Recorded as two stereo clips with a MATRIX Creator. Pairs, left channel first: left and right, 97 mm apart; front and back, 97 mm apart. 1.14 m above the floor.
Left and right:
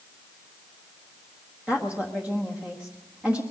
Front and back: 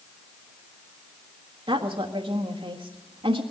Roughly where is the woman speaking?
Behind.